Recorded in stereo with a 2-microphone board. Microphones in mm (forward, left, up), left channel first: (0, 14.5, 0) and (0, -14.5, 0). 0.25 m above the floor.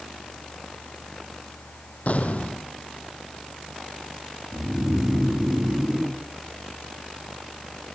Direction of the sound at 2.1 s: 60° left (ahead or behind).